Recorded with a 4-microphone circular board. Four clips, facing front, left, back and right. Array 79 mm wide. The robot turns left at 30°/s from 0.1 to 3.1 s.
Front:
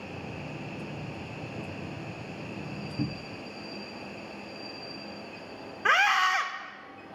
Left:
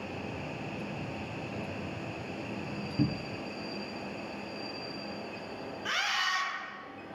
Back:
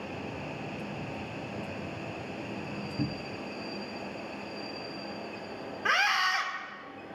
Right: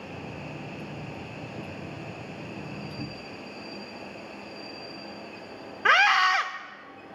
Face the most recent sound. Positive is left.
turn(degrees=-70)